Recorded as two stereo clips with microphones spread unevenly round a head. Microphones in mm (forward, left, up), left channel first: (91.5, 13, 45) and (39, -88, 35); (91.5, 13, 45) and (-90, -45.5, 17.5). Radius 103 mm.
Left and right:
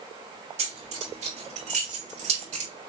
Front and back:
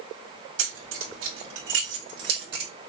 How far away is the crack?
No crack in this recording.